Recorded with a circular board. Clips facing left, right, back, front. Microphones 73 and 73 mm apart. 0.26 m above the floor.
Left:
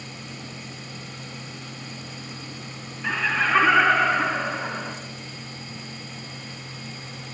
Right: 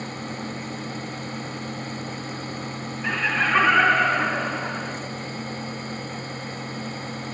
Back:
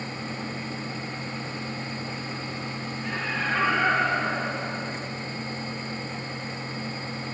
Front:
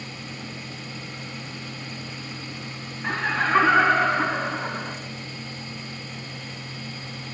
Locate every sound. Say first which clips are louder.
3.0 s laughter: even, front 6 dB; straight ahead, 1.8 m